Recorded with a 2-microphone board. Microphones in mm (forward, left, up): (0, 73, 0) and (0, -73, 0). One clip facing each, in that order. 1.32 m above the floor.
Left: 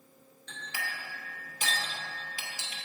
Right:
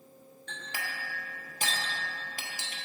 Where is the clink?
55° right (ahead or behind), 1.1 m.